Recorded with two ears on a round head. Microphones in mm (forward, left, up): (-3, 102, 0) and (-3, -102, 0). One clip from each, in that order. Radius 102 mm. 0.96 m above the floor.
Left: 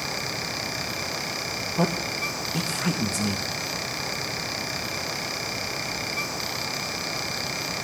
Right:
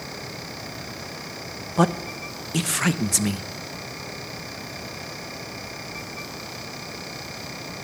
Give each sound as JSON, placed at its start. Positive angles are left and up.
{"t": 1.8, "sound": "a man speaking", "side_deg": -50, "distance_m": 0.9}